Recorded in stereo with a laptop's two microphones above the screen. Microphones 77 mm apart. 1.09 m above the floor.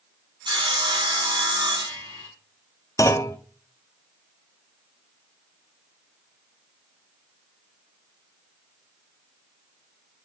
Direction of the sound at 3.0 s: 45° left (ahead or behind).